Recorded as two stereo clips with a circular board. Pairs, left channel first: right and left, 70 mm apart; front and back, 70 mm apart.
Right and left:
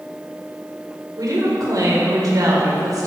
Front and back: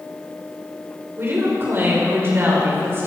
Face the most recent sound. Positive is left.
turn(degrees=125)